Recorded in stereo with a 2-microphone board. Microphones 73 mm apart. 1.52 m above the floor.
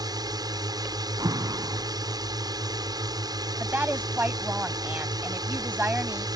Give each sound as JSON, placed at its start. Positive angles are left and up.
{"t": 0.0, "sound": "a drone", "side_deg": -60}
{"t": 1.2, "sound": "an alarm", "side_deg": -60}
{"t": 3.6, "sound": "a woman speaking", "side_deg": -25}